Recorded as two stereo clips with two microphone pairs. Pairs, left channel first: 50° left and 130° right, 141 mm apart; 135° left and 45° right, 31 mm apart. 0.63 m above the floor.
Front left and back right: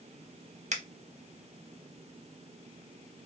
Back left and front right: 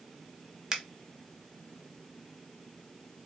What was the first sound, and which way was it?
A finger snap, 115° right.